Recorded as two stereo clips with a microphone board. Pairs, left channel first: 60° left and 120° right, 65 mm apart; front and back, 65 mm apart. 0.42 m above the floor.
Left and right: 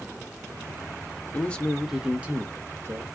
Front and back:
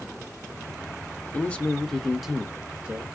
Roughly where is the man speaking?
Ahead left.